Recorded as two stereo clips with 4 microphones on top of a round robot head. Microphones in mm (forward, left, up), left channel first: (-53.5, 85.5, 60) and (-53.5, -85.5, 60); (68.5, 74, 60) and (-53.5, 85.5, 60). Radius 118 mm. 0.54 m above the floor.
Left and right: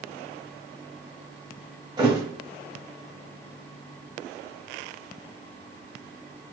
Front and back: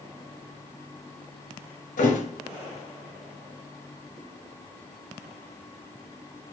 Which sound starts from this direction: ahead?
A thud, at 2.0 s.